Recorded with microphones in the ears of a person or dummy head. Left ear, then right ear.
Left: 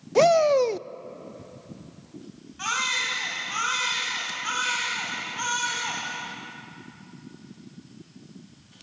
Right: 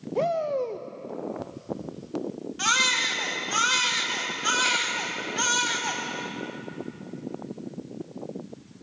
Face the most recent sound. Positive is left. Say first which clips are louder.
# right 3 dB
turn(degrees=-35)  # may be behind; listen again after turning